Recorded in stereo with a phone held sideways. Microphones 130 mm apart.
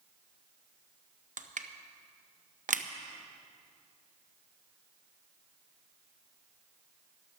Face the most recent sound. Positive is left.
turn(degrees=-75)  # may be behind; listen again after turning